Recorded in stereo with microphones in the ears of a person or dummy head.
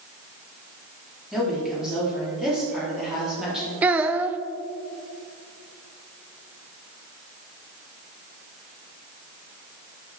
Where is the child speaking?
10° right (ahead or behind), 0.7 m.